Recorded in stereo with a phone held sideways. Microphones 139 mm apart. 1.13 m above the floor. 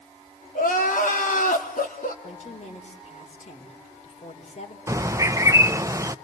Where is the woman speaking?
55° left (ahead or behind), 4 m.